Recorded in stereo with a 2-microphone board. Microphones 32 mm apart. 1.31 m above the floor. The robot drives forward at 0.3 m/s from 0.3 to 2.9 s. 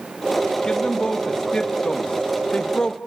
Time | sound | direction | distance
0.6 | a man speaking | 25° left (ahead or behind) | 2.5 m